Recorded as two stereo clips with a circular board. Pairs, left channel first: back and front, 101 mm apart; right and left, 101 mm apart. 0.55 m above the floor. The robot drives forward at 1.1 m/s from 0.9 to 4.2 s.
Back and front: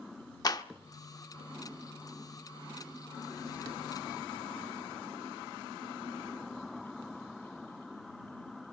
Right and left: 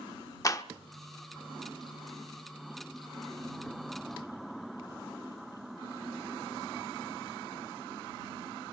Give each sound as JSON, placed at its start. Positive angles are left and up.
{"t": 0.4, "sound": "a clap", "azimuth_deg": -140, "distance_m": 0.8}